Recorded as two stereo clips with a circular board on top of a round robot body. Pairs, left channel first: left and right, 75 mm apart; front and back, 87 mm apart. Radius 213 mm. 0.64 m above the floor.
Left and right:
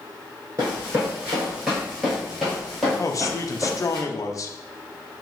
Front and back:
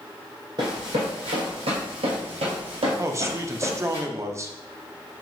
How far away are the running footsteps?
About 0.6 m.